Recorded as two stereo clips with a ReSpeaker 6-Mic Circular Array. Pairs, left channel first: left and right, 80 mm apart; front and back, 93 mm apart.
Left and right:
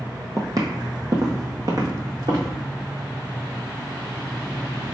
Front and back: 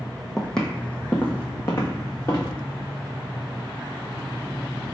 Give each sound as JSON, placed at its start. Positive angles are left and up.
{"t": 0.4, "sound": "footsteps", "azimuth_deg": -85, "distance_m": 0.8}